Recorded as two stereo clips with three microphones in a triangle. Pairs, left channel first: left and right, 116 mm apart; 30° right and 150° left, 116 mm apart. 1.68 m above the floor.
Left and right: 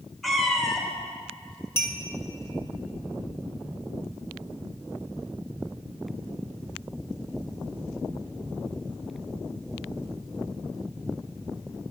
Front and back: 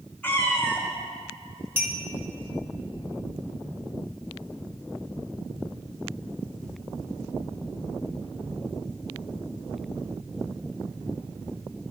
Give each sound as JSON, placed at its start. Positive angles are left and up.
{"t": 0.2, "sound": "a cat meowing", "azimuth_deg": 10, "distance_m": 0.8}
{"t": 1.8, "sound": "a clink", "azimuth_deg": 115, "distance_m": 0.8}